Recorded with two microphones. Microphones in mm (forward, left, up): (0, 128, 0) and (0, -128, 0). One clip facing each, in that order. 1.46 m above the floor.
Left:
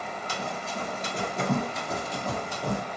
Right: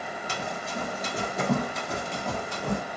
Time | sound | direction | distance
0.3 | running footsteps | 15° right (ahead or behind) | 1.6 m